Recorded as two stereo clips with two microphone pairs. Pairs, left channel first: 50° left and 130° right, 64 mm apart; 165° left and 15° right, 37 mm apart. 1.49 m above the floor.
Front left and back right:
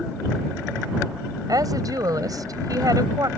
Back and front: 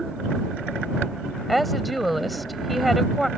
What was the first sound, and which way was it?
A woman speaking, 100° right.